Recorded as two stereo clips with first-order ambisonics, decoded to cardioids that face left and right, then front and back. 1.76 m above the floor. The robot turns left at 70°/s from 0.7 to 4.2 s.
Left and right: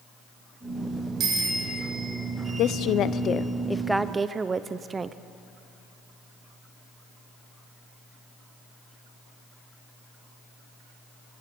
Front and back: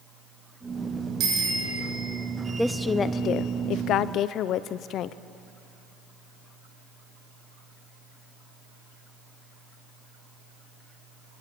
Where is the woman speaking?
90° left, 0.5 m; by 5.2 s 25° right, 0.5 m.